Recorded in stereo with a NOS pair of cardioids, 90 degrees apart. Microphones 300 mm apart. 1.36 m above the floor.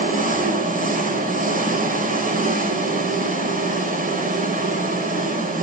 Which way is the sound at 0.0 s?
30° right.